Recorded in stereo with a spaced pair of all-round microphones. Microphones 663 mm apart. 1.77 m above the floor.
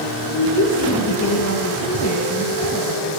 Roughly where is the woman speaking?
Left.